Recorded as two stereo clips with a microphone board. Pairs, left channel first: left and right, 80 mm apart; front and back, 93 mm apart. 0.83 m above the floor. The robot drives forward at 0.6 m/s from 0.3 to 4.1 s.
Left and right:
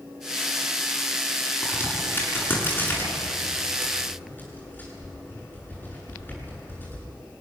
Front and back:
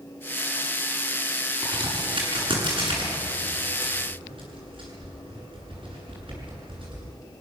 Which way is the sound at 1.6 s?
155° left.